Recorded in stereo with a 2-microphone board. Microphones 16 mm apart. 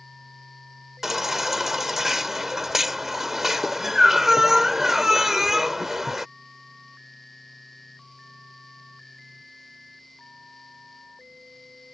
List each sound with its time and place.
1.0 s a baby crying: 25° right (ahead or behind)